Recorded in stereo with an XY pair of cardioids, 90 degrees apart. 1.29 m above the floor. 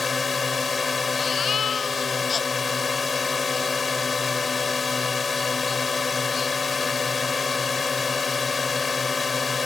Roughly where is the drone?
Ahead left.